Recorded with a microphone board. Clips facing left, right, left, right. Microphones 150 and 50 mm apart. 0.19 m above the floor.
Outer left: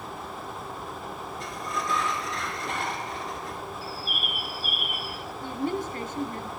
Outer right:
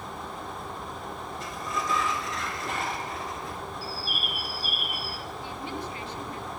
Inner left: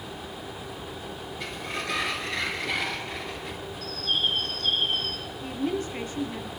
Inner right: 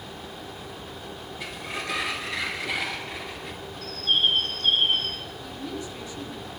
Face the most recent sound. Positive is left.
turn(degrees=45)  # may be behind; listen again after turning